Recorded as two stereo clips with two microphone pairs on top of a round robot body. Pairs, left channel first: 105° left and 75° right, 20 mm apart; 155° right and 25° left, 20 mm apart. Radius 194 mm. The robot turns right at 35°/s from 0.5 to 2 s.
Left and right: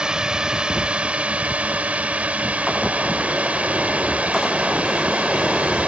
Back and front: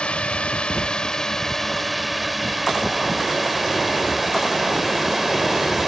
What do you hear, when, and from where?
0.0 s a drone: 125° right; by 5.9 s 60° right